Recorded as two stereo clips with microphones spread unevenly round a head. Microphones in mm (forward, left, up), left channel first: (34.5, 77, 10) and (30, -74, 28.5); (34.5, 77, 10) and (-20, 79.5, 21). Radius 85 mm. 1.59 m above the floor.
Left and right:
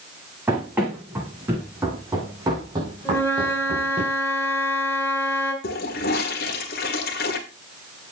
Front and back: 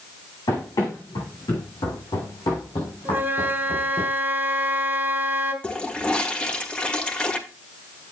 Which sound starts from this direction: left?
A toilet flushing, at 5.6 s.